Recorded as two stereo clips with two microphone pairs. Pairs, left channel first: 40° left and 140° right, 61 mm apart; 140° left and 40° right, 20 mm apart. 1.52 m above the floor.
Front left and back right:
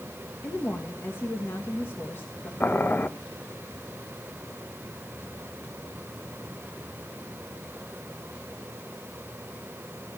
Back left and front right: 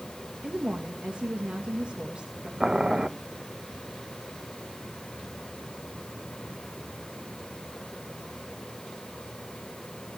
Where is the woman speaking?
10° right, 2.0 m.